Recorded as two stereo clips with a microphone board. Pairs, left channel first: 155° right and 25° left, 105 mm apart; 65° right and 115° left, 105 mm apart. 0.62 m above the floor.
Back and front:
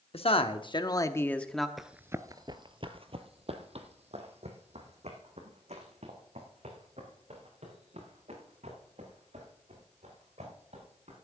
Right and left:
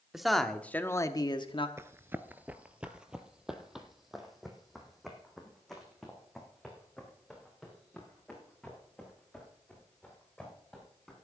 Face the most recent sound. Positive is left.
turn(degrees=20)